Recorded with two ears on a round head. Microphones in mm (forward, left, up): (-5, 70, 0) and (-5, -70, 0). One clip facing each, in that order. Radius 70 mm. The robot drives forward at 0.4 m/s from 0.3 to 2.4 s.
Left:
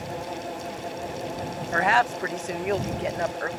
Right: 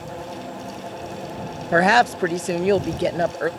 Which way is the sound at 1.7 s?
55° right (ahead or behind).